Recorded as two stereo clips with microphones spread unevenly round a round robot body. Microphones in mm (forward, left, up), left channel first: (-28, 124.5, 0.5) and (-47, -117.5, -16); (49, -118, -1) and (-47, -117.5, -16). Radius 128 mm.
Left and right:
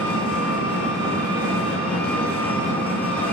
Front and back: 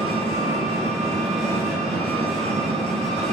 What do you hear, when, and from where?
0.0 s an engine running: 170° left, 4 m